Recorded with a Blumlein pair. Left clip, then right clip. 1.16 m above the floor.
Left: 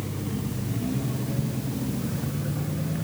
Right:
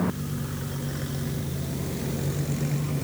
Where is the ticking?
20° left.